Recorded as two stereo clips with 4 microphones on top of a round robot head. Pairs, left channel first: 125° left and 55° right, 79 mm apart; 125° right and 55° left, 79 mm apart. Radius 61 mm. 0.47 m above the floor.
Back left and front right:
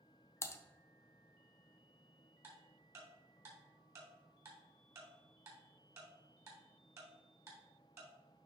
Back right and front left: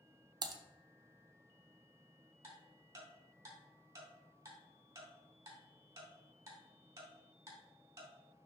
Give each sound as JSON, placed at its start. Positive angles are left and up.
{"t": 0.4, "sound": "typing on a keyboard", "azimuth_deg": 75, "distance_m": 0.9}
{"t": 2.4, "sound": "ticking", "azimuth_deg": 0, "distance_m": 3.5}